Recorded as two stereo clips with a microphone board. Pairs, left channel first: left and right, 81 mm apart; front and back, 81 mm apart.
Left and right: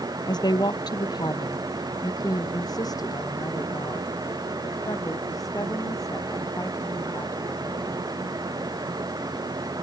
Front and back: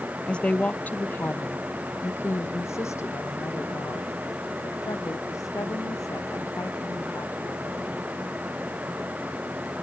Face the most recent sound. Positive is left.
turn(degrees=45)